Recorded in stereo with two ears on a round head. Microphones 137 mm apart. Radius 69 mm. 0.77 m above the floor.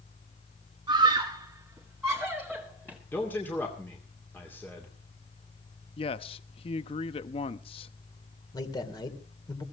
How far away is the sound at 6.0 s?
About 0.8 m.